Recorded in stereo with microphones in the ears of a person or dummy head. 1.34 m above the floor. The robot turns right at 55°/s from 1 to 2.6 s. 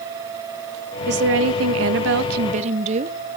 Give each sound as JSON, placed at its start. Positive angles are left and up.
{"t": 1.1, "sound": "a woman speaking", "azimuth_deg": -130, "distance_m": 1.0}